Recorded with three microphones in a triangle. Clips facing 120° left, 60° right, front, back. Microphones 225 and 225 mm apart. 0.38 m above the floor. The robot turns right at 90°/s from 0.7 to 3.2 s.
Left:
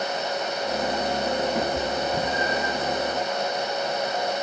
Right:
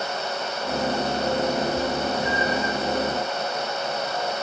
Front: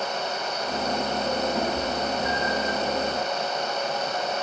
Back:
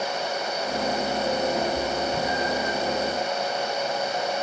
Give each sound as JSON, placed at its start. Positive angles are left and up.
{"t": 1.6, "sound": "a cat meowing", "azimuth_deg": 85, "distance_m": 4.0}